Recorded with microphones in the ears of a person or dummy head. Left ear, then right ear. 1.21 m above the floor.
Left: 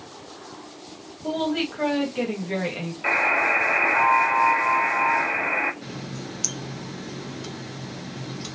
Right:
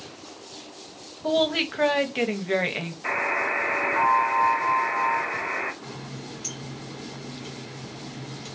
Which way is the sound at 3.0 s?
50° left (ahead or behind).